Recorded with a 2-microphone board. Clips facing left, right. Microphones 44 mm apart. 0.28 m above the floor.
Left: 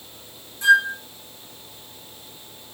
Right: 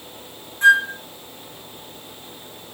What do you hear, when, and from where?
0.6 s a flute: 45° right (ahead or behind), 1.3 m